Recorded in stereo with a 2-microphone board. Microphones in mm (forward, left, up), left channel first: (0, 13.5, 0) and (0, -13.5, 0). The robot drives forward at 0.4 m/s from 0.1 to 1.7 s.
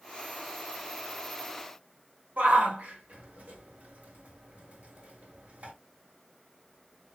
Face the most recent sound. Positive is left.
turn(degrees=-65)  # may be behind; listen again after turning